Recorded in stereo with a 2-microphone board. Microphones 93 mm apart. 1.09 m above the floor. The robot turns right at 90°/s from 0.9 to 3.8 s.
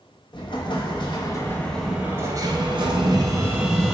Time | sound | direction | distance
0.3 | an explosion | 95° left | 0.5 m